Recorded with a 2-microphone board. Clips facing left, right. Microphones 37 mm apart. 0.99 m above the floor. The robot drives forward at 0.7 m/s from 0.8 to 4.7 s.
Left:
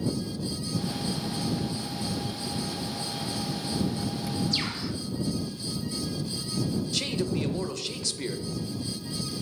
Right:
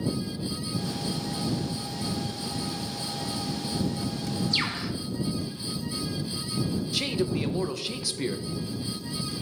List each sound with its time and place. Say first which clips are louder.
4.5 s a bird: right 2 dB; 35° right (ahead or behind), 1.1 m; by 4.9 s 40° right (ahead or behind), 1.0 m
6.9 s a man speaking: right 4 dB; 10° right (ahead or behind), 0.6 m